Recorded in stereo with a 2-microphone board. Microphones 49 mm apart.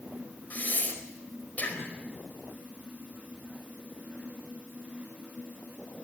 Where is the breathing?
35° left (ahead or behind), 4.5 m.